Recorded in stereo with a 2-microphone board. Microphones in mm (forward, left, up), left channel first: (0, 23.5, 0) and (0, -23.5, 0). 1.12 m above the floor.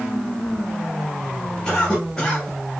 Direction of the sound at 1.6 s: 20° left (ahead or behind).